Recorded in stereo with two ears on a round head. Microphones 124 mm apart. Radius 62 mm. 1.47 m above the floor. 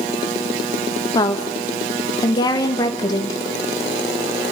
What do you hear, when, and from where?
1.1 s a woman speaking: 30° left (ahead or behind), 2 m